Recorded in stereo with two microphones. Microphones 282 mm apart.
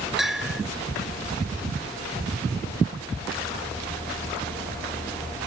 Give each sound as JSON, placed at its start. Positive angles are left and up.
{"t": 0.2, "sound": "a bell", "side_deg": 0}